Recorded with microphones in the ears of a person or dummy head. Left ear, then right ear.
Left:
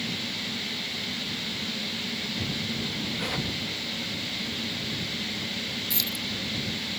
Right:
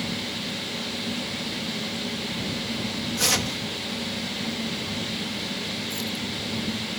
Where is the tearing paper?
70° right (ahead or behind).